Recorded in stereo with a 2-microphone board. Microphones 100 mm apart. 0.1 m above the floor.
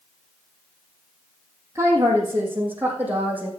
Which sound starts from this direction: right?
A woman speaking, at 1.8 s.